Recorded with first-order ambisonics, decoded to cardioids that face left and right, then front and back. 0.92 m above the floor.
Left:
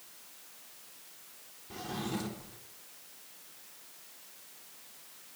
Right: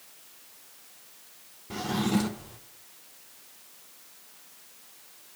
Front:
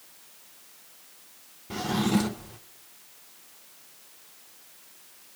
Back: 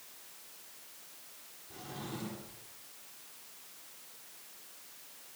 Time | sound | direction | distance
1.7 | a drawer | 25° right | 0.9 m